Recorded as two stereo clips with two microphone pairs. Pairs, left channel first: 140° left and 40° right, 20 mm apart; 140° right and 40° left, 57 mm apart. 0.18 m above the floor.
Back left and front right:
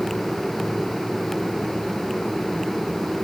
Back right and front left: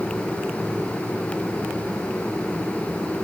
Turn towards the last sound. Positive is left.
No sound to turn to.